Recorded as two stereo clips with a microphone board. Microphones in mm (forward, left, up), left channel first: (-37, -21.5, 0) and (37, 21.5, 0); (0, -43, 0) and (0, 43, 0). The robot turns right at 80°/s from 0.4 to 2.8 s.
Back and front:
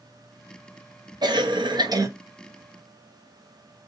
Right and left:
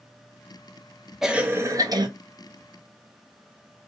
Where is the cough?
5° left, 0.8 m; by 2.1 s 75° left, 0.8 m.